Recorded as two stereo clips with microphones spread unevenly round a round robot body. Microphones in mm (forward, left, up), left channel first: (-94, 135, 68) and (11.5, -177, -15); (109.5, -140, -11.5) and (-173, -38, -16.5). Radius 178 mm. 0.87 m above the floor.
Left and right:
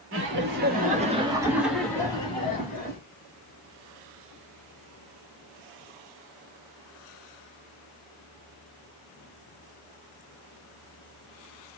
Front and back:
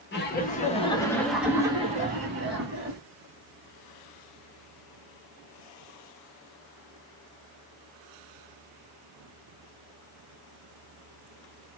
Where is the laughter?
65° right, 1.3 m; by 3.0 s straight behind, 1.3 m.